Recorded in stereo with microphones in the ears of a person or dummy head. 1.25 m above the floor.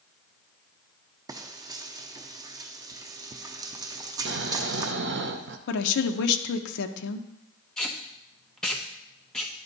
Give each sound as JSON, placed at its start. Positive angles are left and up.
{"t": 1.3, "sound": "frying", "side_deg": -20, "distance_m": 0.5}
{"t": 4.2, "sound": "snoring", "side_deg": -55, "distance_m": 0.7}
{"t": 5.7, "sound": "a woman speaking", "side_deg": 70, "distance_m": 0.9}
{"t": 7.8, "sound": "tape being pulled", "side_deg": 5, "distance_m": 1.0}